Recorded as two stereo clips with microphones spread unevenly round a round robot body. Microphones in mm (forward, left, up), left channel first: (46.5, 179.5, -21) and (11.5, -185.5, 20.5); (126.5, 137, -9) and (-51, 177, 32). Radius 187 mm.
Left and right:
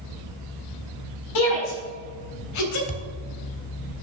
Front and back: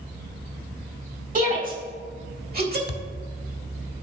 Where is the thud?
15° left, 0.7 m.